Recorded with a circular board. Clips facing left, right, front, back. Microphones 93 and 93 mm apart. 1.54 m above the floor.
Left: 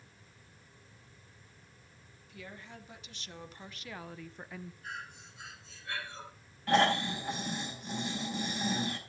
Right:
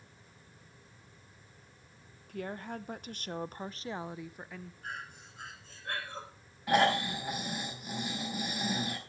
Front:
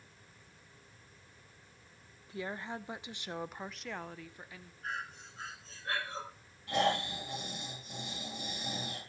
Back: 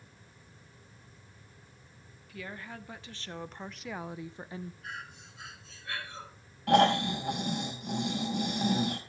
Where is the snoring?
170° right, 4.5 m.